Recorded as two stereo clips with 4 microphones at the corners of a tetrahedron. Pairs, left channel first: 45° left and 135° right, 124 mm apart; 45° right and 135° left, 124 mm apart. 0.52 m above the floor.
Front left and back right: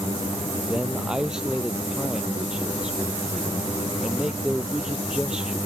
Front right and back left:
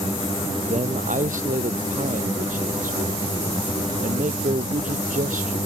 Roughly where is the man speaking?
Behind left.